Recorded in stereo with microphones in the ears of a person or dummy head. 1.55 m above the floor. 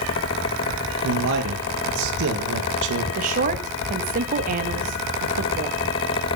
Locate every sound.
1.0 s a man speaking: 75° right (ahead or behind), 2.5 m
3.1 s a woman speaking: 45° right (ahead or behind), 1.8 m